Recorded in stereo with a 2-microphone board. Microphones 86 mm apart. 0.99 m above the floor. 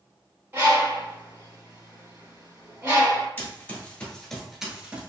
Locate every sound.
0.5 s a bird: 30° right (ahead or behind), 1.7 m
3.4 s running footsteps: 25° left (ahead or behind), 1.3 m; by 5.1 s 20° right (ahead or behind), 1.1 m